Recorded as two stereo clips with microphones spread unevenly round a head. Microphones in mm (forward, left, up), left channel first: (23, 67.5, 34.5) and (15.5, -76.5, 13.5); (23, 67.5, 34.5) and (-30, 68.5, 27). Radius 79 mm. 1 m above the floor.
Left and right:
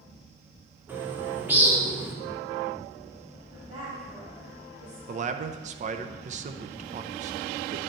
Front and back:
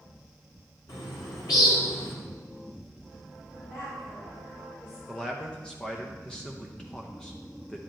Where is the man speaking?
85° right, 0.6 m.